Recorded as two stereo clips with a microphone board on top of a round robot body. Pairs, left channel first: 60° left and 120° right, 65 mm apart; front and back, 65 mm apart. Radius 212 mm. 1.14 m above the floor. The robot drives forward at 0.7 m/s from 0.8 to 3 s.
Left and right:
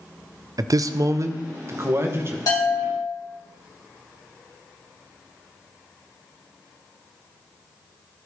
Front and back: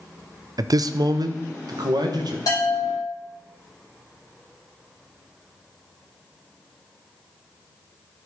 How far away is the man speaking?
About 0.5 m.